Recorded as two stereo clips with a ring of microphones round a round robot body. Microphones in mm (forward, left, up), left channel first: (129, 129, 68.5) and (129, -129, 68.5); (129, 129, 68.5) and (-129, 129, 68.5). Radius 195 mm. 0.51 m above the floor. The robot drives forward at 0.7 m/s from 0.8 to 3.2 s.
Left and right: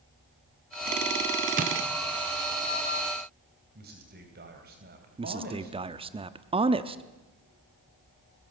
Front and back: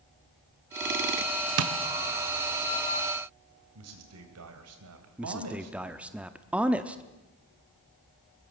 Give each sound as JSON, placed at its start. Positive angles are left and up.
{"t": 1.6, "sound": "tapping", "azimuth_deg": -150, "distance_m": 0.9}
{"t": 3.8, "sound": "a man speaking", "azimuth_deg": -150, "distance_m": 3.0}
{"t": 5.2, "sound": "a man speaking", "azimuth_deg": -105, "distance_m": 0.8}